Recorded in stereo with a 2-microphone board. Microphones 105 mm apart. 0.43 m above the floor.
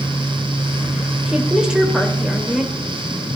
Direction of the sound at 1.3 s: 10° right (ahead or behind).